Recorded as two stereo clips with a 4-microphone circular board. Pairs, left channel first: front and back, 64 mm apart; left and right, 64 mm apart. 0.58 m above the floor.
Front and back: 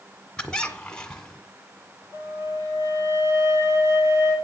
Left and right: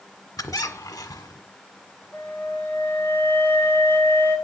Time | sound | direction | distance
0.4 | a squeak | 75° left | 1.5 m
2.1 | a flute | 145° left | 8 m